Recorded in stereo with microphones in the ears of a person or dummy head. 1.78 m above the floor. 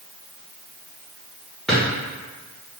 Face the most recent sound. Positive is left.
turn(degrees=5)  # may be behind; listen again after turning